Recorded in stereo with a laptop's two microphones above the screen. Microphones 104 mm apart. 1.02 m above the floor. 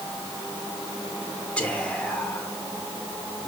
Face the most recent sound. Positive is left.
turn(degrees=15)  # may be behind; listen again after turning